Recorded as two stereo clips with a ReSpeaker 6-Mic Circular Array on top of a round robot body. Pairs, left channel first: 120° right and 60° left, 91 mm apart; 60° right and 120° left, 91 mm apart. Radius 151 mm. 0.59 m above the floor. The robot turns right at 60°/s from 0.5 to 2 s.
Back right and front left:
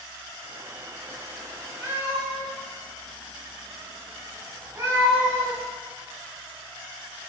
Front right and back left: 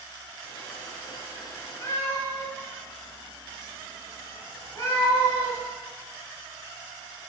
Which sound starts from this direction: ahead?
A cat meowing, at 1.8 s.